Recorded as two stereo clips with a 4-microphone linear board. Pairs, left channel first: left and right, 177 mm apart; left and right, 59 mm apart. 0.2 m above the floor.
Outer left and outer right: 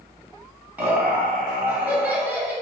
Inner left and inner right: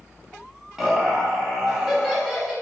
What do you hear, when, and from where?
0.8 s laughter: 10° right (ahead or behind), 1.0 m